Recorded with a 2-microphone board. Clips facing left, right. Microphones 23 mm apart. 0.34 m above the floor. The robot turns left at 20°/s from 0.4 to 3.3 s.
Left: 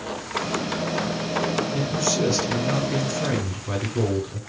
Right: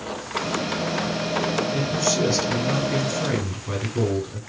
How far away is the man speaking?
About 1.2 m.